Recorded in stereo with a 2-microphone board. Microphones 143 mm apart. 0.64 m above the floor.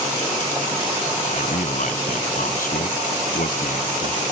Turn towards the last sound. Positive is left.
turn(degrees=80)